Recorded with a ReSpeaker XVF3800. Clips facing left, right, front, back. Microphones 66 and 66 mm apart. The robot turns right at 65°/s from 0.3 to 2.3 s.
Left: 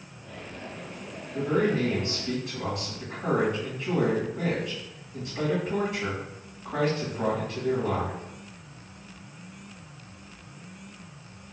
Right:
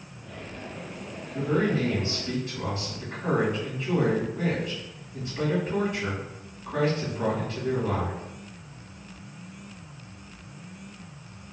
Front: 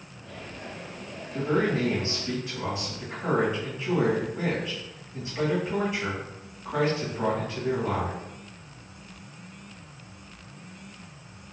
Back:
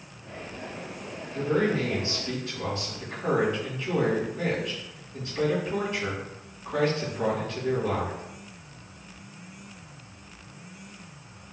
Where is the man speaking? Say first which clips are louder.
Even, even; 10° left, 1.8 m; by 8.2 s 75° left, 1.8 m.